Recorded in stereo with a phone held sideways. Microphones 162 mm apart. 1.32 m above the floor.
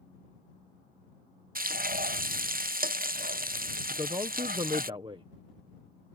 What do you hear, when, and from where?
1.6 s frying: 60° right (ahead or behind)
3.9 s a man speaking: 30° right (ahead or behind)